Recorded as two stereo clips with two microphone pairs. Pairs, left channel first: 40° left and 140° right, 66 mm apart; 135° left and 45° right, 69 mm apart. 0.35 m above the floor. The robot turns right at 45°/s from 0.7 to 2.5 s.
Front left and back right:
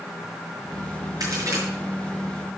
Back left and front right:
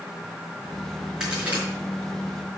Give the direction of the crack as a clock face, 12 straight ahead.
4 o'clock.